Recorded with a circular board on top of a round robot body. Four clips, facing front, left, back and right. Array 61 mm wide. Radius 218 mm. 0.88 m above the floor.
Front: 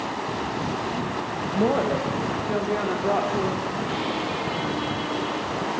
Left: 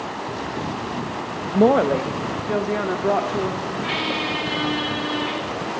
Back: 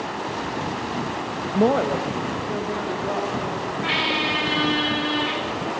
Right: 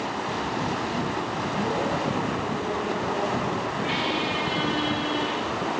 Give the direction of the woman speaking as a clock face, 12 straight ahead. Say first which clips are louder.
Left 12 dB, back 3 dB; 8 o'clock.